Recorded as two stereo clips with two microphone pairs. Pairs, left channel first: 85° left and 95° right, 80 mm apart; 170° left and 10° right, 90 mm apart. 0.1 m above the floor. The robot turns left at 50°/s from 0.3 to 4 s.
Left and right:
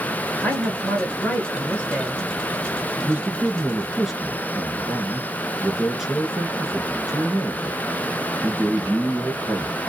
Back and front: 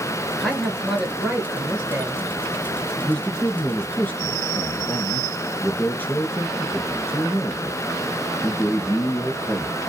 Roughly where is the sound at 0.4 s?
Left.